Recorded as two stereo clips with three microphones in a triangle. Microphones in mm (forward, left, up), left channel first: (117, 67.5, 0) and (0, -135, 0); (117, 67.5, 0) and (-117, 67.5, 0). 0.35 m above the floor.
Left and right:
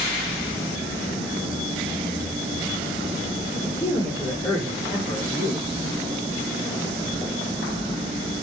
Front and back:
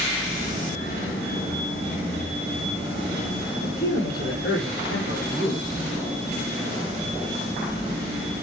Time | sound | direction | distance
3.6 | a man speaking | 15° right | 6 m